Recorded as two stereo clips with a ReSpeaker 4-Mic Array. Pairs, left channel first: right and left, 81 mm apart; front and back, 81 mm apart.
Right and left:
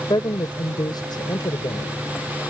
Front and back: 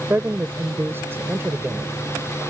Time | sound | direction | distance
0.1 | a woman speaking | 120° right | ?